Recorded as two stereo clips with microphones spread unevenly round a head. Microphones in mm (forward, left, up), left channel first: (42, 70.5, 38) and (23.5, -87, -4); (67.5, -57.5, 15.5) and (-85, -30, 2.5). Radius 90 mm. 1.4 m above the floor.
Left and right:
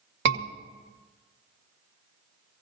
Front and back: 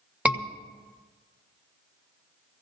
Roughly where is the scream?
Right.